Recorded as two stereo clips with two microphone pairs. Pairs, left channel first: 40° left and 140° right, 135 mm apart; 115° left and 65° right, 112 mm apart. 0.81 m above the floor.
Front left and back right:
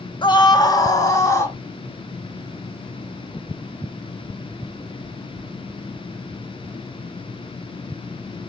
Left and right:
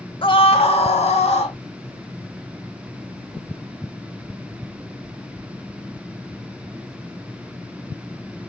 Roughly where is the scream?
Left.